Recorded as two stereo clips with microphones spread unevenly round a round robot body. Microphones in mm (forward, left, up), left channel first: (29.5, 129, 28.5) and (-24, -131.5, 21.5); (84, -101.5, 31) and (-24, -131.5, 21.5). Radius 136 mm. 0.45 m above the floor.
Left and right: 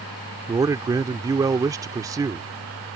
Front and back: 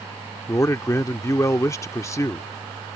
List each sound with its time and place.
0.5 s a man speaking: 35° right